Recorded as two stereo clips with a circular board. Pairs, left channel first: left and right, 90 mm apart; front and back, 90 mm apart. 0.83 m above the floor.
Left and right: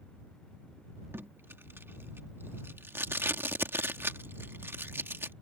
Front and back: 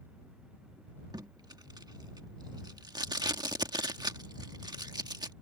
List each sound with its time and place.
1.1 s tape being pulled: 150° right